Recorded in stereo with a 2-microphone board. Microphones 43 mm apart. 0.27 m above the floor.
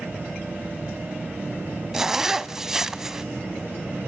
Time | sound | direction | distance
1.9 | a zipper | 10° right (ahead or behind) | 0.5 m